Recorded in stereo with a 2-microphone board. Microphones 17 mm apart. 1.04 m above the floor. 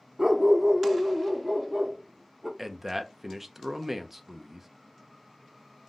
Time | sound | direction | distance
0.2 | a dog barking | 25° right (ahead or behind) | 0.6 m
2.6 | a man speaking | 20° right (ahead or behind) | 0.5 m